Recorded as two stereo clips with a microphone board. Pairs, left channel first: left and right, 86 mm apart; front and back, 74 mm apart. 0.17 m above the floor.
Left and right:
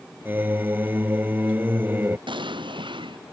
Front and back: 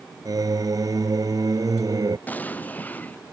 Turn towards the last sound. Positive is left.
turn(degrees=-70)